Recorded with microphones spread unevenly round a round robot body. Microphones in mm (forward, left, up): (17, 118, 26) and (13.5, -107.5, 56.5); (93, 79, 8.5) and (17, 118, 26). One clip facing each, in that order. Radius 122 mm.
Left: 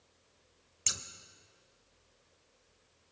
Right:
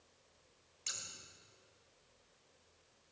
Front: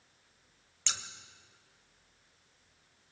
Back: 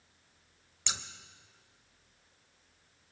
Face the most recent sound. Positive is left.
turn(degrees=80)